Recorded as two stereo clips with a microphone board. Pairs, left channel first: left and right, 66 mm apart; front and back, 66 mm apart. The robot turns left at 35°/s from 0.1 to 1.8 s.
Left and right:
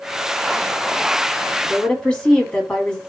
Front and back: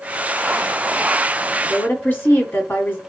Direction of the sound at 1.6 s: 30° left.